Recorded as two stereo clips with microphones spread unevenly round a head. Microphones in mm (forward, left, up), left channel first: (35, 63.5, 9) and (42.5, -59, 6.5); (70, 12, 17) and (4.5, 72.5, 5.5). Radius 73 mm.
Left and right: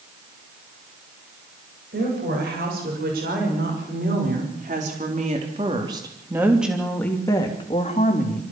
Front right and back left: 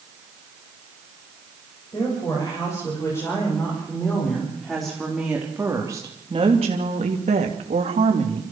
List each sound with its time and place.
1.9 s a woman speaking: 110° right, 8 m; by 8.4 s 135° left, 3.5 m